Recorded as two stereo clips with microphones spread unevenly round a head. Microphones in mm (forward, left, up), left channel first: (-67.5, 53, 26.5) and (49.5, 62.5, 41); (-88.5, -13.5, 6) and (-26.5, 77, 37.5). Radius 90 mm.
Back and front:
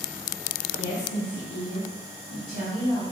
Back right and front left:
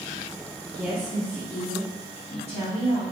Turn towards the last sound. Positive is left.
turn(degrees=-150)